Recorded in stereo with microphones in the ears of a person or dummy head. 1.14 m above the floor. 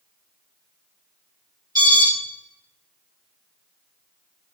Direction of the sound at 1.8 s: 15° right (ahead or behind).